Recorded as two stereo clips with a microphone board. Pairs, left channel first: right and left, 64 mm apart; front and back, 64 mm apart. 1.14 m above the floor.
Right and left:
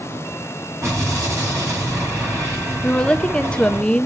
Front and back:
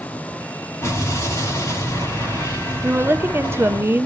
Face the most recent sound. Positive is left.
turn(degrees=-155)